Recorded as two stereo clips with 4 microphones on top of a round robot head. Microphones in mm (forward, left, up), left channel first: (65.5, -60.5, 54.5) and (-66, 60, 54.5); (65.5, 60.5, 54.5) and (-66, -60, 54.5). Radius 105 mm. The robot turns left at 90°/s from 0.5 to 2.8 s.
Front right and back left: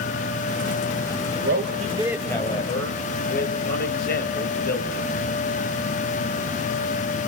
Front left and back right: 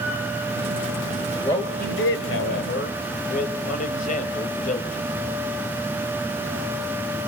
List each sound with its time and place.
1.4 s a man speaking: 115° left, 3.5 m; by 5.1 s 10° right, 3.5 m